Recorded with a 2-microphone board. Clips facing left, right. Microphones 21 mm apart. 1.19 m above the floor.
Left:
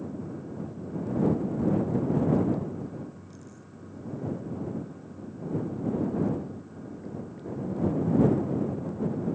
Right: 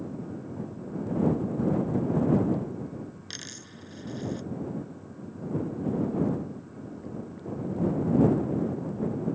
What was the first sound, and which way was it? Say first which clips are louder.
A dropped coin: right 6 dB; 80° right.